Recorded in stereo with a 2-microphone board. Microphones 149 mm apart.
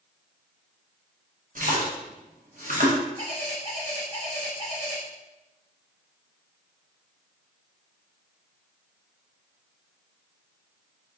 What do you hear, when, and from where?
1.6 s a splash: 65° right (ahead or behind), 0.8 m
3.2 s a bird: 35° right (ahead or behind), 1.8 m